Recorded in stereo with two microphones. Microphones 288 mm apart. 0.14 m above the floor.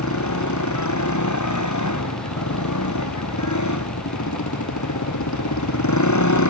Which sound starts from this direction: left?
A motorcycle, at 0.0 s.